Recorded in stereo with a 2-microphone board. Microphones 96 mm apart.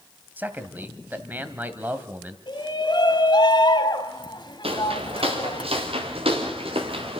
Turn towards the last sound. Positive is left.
turn(degrees=-80)